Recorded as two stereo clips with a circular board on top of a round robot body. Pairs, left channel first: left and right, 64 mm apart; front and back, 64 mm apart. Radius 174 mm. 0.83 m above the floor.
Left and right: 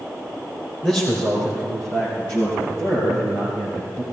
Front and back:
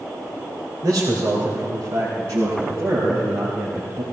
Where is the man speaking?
160° left, 3.5 m; by 4.0 s 135° left, 6.5 m.